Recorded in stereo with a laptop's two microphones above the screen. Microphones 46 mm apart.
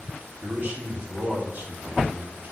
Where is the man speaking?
40° right (ahead or behind), 2.5 m.